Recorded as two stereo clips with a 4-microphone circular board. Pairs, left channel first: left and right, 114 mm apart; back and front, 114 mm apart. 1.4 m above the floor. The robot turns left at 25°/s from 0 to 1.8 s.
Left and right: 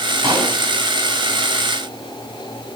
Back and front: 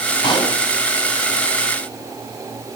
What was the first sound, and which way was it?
A pop, 130° right.